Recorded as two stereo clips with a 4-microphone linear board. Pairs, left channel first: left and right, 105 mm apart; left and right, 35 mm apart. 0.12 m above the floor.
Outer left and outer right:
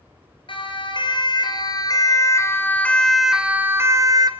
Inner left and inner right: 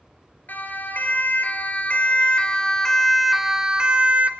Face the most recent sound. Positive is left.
turn(degrees=-40)  # may be behind; listen again after turning